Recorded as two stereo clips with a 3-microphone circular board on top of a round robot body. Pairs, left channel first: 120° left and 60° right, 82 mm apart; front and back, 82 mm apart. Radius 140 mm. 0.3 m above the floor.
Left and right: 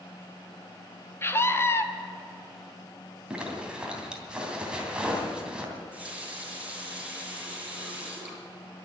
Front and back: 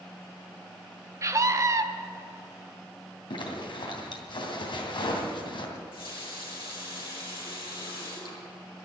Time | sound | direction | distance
1.2 | a scream | 160° left | 1.6 m
3.3 | a zipper | 20° left | 3 m
5.8 | a running tap | 15° left | 5.5 m